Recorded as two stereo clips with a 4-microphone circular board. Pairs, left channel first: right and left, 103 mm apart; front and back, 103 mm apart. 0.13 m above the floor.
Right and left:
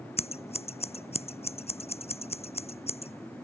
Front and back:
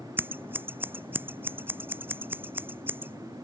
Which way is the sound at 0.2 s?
110° right.